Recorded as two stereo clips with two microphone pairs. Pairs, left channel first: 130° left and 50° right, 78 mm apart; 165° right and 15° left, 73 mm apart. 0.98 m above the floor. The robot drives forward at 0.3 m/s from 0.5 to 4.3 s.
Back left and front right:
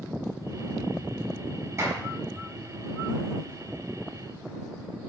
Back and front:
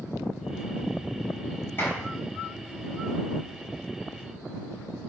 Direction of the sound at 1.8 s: 100° right.